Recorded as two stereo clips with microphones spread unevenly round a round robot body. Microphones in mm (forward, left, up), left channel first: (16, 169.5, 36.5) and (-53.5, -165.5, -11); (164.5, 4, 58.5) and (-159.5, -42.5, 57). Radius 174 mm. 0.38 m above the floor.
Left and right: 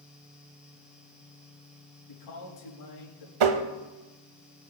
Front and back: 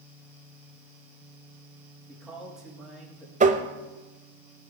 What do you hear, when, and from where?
2.1 s a man speaking: 100° left, 6.5 m
3.4 s tapping: 105° right, 1.1 m